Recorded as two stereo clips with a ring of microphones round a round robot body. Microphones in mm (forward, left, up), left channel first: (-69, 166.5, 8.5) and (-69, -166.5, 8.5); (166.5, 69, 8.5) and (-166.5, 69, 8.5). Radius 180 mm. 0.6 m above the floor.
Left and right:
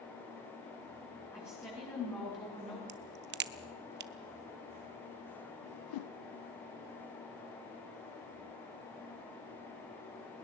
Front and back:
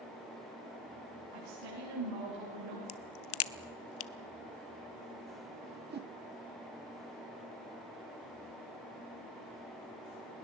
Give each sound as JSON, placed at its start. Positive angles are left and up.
{"t": 1.3, "sound": "a woman speaking", "azimuth_deg": 175, "distance_m": 7.5}
{"t": 2.9, "sound": "a crack", "azimuth_deg": -40, "distance_m": 0.6}
{"t": 5.6, "sound": "a whoosh", "azimuth_deg": 115, "distance_m": 0.6}